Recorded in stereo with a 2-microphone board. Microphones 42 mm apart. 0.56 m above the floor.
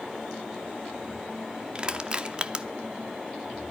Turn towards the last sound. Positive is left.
turn(degrees=-25)  # may be behind; listen again after turning